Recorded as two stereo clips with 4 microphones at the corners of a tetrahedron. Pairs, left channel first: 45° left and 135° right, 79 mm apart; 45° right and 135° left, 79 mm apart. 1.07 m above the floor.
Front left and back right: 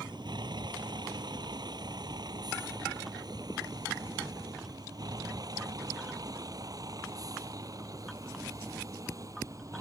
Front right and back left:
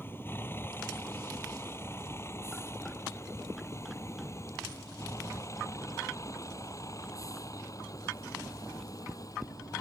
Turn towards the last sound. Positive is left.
turn(degrees=-85)